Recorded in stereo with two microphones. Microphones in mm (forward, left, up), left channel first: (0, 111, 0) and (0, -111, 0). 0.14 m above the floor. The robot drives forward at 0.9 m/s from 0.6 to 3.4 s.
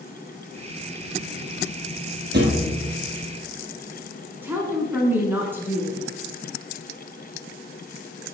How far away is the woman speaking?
About 1.7 m.